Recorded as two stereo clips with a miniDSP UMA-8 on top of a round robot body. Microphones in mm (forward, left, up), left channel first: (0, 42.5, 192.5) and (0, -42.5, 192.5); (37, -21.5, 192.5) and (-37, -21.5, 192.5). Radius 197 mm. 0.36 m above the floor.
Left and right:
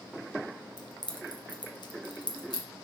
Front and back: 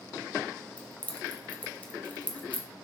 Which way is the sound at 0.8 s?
70° left.